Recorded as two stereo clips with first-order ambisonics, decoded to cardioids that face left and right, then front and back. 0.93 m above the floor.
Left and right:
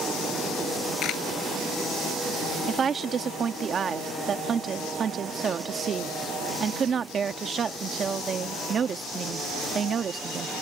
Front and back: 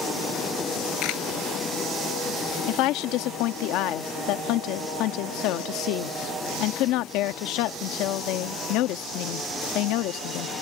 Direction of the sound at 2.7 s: 25° right.